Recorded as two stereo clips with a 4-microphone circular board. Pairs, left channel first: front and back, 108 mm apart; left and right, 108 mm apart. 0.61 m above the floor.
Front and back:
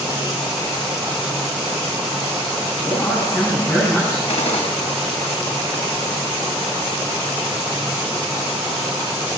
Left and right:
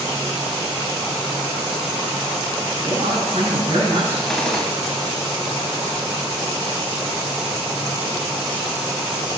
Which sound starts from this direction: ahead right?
A woman speaking, at 2.9 s.